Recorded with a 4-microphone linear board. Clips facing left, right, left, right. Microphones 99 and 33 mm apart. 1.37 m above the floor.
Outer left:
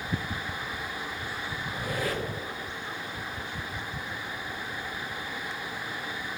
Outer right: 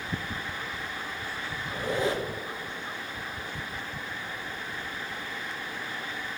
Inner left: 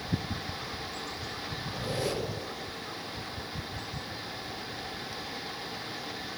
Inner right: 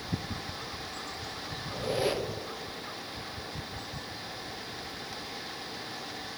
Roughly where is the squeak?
Right.